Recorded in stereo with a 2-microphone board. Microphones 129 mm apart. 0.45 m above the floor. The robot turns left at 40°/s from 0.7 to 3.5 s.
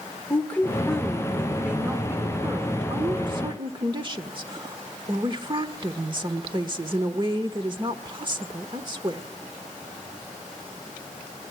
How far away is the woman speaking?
About 1.3 m.